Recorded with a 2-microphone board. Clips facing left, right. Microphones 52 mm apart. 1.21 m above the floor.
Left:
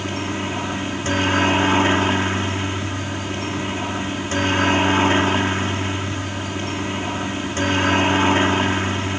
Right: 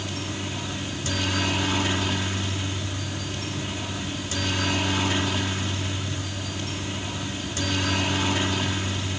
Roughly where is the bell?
I don't hear a bell.